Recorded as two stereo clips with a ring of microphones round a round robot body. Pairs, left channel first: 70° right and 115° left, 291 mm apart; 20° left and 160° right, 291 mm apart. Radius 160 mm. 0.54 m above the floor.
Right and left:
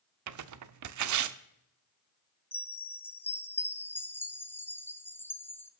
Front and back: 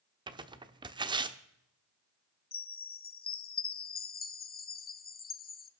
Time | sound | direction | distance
0.3 | tearing paper | 130° left | 0.9 m
2.5 | a chime | 10° left | 1.0 m